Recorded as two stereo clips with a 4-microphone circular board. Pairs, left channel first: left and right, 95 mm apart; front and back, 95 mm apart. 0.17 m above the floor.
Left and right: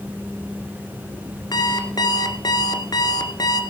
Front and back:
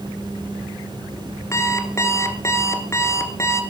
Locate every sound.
1.5 s an alarm clock: 55° left, 1.6 m